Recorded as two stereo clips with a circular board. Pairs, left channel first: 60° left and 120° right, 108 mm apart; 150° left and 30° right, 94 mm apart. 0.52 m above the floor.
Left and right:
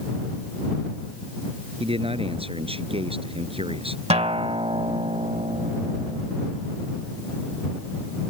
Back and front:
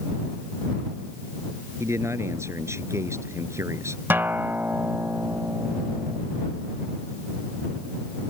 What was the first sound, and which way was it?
A man speaking, 90° right.